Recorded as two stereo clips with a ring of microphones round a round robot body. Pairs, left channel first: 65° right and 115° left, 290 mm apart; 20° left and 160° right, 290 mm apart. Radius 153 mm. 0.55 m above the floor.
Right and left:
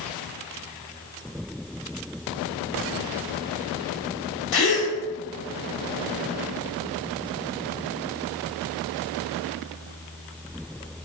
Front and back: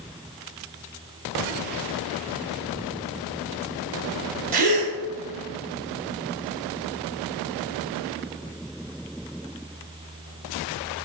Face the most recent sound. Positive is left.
turn(degrees=-95)